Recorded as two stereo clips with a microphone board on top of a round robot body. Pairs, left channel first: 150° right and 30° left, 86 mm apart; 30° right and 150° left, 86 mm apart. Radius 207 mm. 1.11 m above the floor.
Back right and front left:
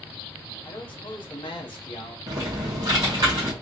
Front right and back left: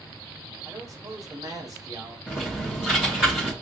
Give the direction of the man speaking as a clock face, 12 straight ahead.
5 o'clock.